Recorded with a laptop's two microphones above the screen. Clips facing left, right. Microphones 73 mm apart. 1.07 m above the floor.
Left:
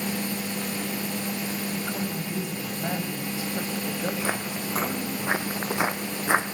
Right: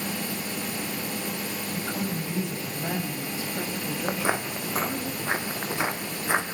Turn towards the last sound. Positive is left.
turn(degrees=25)  # may be behind; listen again after turning